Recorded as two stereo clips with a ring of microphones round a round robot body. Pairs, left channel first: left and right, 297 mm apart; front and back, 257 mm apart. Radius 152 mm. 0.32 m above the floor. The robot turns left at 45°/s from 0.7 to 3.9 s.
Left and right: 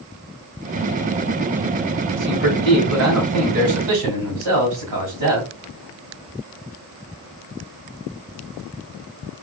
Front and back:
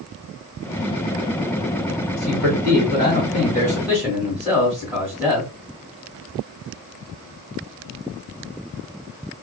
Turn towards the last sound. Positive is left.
turn(degrees=-95)